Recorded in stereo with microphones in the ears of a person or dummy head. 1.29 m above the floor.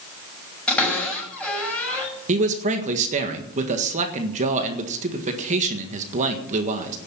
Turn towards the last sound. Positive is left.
turn(degrees=-45)  # may be behind; listen again after turning